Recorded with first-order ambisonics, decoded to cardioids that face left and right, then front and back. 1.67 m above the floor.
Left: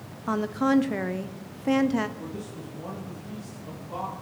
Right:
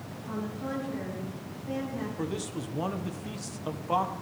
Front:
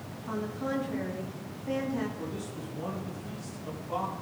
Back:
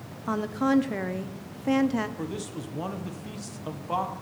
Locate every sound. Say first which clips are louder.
0.3 s a woman speaking: left 11 dB, back 8 dB; 125° left, 0.8 m
2.2 s a man speaking: right 4 dB, back 3 dB; 125° right, 1.2 m